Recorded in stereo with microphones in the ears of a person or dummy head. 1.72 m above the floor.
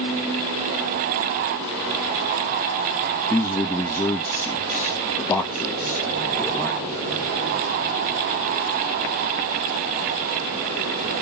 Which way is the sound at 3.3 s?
10° left (ahead or behind).